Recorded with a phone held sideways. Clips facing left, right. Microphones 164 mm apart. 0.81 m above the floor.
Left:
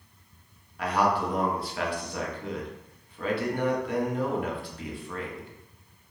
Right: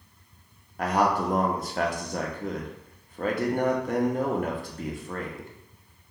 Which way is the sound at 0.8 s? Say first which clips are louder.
Right 2 dB; 45° right (ahead or behind).